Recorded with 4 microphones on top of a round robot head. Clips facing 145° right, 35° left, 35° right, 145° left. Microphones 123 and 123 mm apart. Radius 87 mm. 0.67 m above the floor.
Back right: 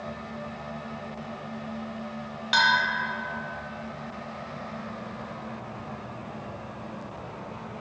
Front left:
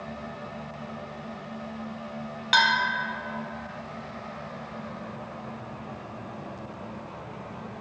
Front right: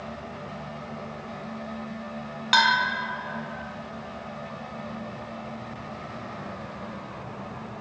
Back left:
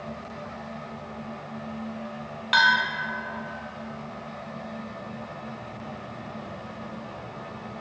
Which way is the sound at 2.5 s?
10° left.